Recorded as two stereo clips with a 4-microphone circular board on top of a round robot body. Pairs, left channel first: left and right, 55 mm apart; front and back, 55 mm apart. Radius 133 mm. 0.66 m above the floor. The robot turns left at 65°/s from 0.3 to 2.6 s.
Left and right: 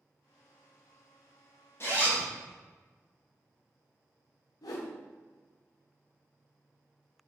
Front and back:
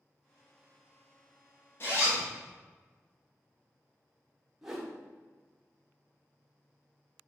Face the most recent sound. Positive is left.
turn(degrees=95)